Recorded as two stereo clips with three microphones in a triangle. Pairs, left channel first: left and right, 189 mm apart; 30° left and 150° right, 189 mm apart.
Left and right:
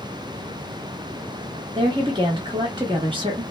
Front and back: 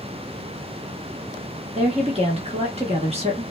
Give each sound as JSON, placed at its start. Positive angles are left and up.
{"t": 1.8, "sound": "a woman speaking", "azimuth_deg": -130, "distance_m": 0.9}